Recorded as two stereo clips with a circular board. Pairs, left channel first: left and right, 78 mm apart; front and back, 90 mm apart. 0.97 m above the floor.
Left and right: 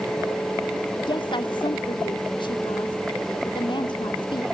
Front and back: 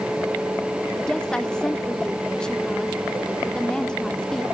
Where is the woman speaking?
80° left, 1.9 m.